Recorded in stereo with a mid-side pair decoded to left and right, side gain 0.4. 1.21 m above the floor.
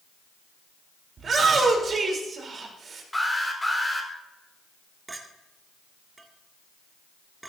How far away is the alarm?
About 4.5 m.